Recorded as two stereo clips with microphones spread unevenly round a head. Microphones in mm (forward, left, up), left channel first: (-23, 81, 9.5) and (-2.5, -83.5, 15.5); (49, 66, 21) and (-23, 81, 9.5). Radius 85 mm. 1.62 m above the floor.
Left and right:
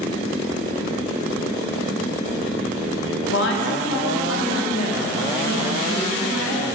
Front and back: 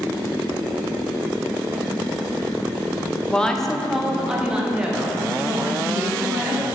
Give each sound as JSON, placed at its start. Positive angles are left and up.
{"t": 3.3, "sound": "a woman speaking", "azimuth_deg": 65, "distance_m": 1.0}